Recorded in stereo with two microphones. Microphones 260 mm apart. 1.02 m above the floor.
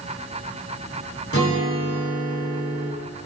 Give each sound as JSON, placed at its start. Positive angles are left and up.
{"t": 1.3, "sound": "a guitar", "side_deg": 60, "distance_m": 3.5}